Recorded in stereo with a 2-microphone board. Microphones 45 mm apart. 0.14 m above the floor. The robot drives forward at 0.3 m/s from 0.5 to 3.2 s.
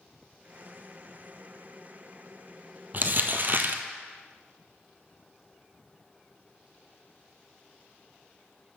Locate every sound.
2.9 s crumpling: 45° right (ahead or behind), 0.8 m; by 3.8 s 50° right (ahead or behind), 0.7 m